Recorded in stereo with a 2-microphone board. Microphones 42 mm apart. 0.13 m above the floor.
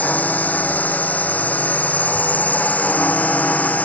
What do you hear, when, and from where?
0.0 s a drone: 40° left (ahead or behind)